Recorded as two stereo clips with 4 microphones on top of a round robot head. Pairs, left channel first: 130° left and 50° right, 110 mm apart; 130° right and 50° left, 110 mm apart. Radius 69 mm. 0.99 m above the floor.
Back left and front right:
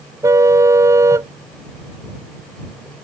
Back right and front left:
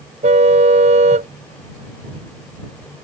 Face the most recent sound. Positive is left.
turn(degrees=20)